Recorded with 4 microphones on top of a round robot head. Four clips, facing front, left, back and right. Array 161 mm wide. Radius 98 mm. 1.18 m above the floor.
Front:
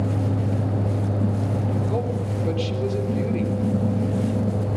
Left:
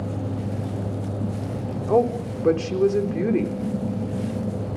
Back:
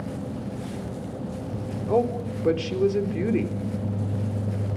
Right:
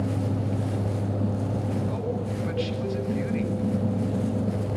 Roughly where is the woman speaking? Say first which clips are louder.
Left 9 dB, back 3 dB; left.